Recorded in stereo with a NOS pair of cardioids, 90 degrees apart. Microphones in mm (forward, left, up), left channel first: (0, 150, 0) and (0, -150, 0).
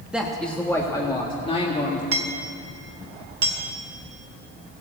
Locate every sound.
0.1 s a man speaking: 5° right, 1.4 m; by 2.0 s 25° left, 2 m
2.1 s hammering: 50° right, 1.7 m